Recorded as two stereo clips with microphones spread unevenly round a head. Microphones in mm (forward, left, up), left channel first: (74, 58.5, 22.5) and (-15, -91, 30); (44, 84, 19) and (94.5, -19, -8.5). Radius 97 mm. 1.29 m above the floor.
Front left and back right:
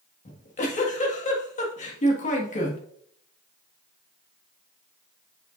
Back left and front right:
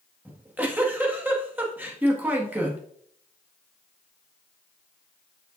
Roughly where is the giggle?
Ahead.